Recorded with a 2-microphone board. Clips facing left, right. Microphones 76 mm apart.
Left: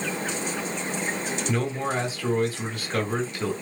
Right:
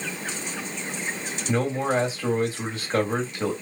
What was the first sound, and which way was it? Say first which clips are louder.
A man speaking: right 5 dB; 25° right (ahead or behind).